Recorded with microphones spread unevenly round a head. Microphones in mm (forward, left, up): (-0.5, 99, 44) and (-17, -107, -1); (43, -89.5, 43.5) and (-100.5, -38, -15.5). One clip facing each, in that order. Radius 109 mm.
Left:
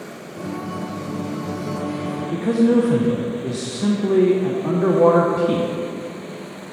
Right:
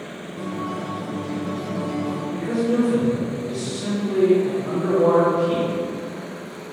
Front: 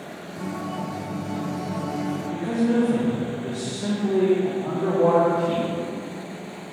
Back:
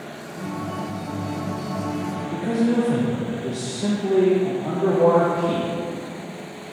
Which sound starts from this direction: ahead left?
A guitar, at 0.4 s.